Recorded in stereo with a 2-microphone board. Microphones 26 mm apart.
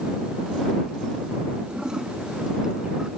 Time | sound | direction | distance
1.7 | a toilet flushing | 25° right (ahead or behind) | ?